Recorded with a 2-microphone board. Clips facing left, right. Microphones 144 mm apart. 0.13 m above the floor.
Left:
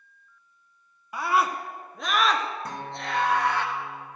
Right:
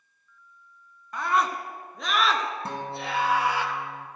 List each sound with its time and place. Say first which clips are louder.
1.1 s a scream: left 1 dB; 10° left (ahead or behind), 1.1 m; by 3.6 s 10° right (ahead or behind), 2 m
2.6 s a guitar: right 2 dB; 30° right (ahead or behind), 1.7 m